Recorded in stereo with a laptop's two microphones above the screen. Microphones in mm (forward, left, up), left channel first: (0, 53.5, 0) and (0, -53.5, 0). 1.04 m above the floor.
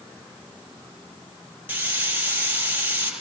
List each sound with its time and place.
1.7 s a hiss: 15° right (ahead or behind), 8.5 m